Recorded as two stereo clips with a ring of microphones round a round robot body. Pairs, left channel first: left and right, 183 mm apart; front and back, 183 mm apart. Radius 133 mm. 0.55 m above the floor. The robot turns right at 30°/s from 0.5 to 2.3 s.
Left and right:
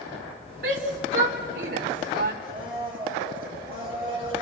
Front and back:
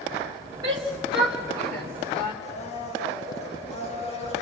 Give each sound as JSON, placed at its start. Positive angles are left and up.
{"t": 0.6, "sound": "a shout", "azimuth_deg": -115, "distance_m": 2.0}
{"t": 2.4, "sound": "a blender", "azimuth_deg": 50, "distance_m": 8.0}